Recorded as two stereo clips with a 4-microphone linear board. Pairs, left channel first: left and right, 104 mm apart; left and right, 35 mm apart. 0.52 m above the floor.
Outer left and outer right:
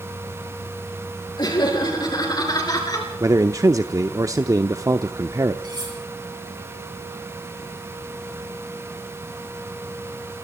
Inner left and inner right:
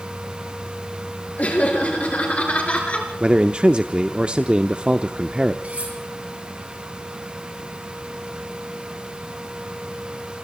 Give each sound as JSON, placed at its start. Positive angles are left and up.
{"t": 1.4, "sound": "laughter", "side_deg": 45, "distance_m": 8.5}
{"t": 3.2, "sound": "a man speaking", "side_deg": -30, "distance_m": 0.8}
{"t": 5.6, "sound": "cutlery clinking", "side_deg": -45, "distance_m": 7.5}